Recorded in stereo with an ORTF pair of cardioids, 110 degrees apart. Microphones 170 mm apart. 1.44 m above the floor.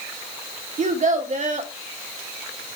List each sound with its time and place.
0.8 s a child speaking: 45° right, 3 m